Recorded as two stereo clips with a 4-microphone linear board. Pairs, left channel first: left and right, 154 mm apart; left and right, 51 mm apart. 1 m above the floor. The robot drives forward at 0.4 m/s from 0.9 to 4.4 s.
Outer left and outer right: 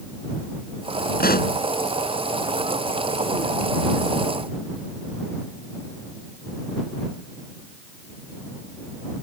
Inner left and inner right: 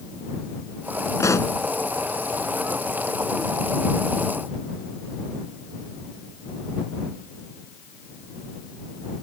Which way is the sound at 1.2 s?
85° left.